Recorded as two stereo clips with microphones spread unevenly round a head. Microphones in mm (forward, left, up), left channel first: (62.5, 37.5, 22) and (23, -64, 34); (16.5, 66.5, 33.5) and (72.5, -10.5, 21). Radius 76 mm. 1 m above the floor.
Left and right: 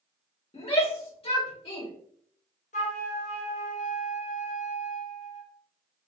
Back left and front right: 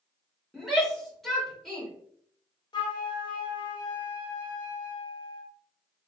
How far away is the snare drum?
No snare drum in this recording.